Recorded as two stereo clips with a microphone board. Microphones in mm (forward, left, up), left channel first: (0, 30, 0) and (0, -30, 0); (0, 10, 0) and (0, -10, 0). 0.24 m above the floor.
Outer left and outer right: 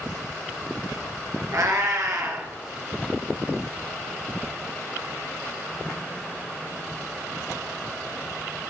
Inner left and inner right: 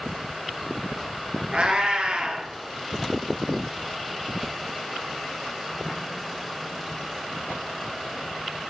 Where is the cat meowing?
65° right (ahead or behind), 0.8 m.